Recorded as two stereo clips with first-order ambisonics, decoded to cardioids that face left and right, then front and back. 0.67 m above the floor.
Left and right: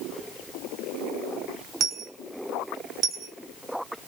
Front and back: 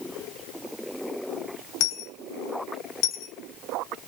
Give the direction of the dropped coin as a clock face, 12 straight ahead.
1 o'clock.